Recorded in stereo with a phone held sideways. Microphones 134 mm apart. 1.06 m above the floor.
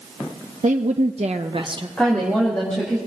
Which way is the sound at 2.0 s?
5° left (ahead or behind).